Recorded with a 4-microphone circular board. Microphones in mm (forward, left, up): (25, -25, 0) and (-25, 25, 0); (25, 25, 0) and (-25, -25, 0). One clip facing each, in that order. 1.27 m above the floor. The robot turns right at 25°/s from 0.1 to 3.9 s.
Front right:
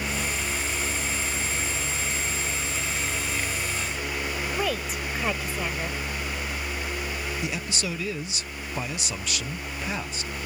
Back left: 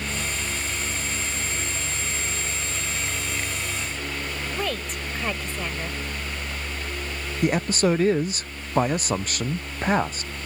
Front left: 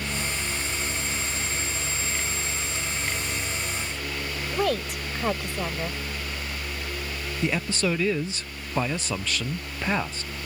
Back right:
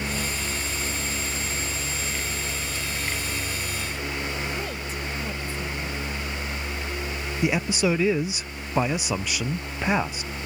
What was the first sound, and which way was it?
A woman speaking, 40° left.